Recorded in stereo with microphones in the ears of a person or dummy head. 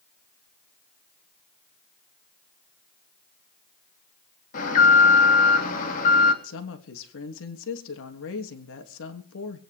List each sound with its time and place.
4.5 s an alarm: 50° left (ahead or behind), 3.5 m
6.4 s a woman speaking: 75° left (ahead or behind), 3 m